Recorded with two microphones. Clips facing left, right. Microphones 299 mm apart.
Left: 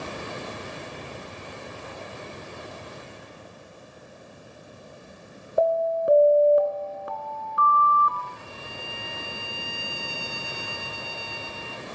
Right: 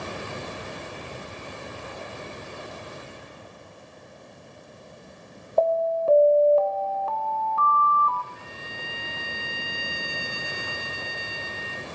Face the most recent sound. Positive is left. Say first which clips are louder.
# left 1 dB
turn(degrees=-25)  # may be behind; listen again after turning